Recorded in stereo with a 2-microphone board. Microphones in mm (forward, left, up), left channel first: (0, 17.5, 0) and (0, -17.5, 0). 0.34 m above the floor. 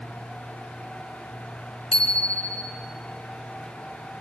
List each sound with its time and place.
1.9 s a bicycle bell: 30° left (ahead or behind), 3 m